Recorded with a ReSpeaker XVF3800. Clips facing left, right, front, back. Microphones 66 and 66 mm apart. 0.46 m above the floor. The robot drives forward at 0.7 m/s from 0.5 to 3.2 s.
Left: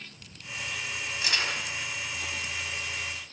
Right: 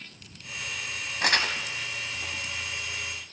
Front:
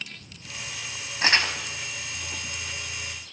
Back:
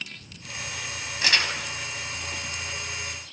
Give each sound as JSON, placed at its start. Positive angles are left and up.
{"t": 1.2, "sound": "crumpling", "azimuth_deg": -55, "distance_m": 2.0}